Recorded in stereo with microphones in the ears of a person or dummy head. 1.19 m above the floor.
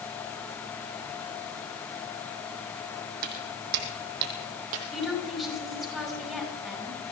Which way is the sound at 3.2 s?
60° right (ahead or behind).